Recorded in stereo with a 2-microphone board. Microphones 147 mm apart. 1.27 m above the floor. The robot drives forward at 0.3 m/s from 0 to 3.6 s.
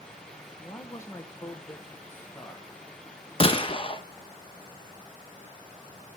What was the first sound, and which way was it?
A man speaking, 25° left (ahead or behind).